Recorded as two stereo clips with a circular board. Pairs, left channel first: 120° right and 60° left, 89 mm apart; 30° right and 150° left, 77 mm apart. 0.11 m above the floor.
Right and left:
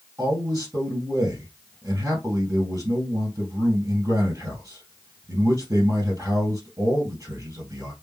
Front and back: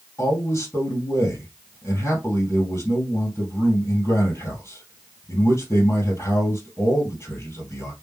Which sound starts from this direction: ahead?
A man speaking, at 0.2 s.